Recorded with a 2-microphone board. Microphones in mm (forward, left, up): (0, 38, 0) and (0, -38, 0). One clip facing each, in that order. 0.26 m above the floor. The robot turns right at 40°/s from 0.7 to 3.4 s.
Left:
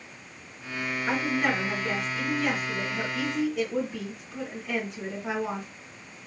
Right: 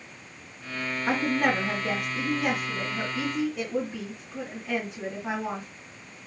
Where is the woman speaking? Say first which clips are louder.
Right 2 dB; 100° right, 1.7 m; by 5.7 s 10° right, 1.7 m.